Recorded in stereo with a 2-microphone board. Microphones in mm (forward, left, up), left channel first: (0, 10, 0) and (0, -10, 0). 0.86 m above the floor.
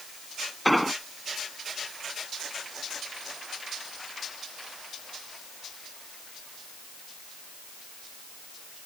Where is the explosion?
Centre (ahead or behind).